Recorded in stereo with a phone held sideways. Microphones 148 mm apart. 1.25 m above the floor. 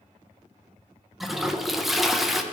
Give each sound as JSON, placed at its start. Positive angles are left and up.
{"t": 1.2, "sound": "a toilet flushing", "side_deg": 0, "distance_m": 0.5}